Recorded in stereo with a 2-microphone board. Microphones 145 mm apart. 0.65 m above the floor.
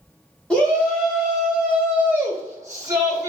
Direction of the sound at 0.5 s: 5° left (ahead or behind).